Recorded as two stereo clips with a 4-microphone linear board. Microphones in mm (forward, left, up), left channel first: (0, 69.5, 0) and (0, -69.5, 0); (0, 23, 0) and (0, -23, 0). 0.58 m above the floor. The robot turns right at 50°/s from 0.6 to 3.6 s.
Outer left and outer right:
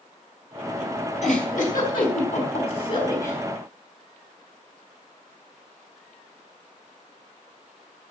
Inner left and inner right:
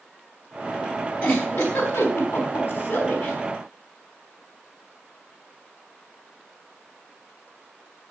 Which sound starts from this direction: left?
A giggle, at 1.2 s.